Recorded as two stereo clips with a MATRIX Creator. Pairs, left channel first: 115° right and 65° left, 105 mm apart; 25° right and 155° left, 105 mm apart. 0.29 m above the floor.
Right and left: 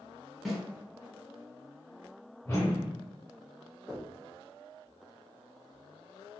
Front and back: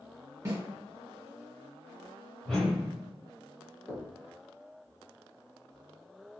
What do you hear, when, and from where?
0.5 s a snare drum: 160° left, 1.4 m
2.5 s a whoosh: 100° right, 1.1 m
3.9 s knocking: 30° right, 0.8 m